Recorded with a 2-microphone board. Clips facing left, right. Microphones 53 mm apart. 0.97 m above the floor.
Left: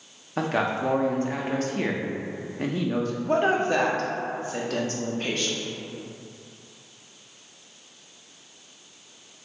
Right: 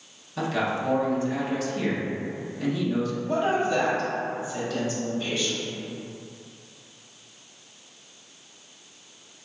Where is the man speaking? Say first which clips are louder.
Left 1 dB; 45° left (ahead or behind), 0.5 m.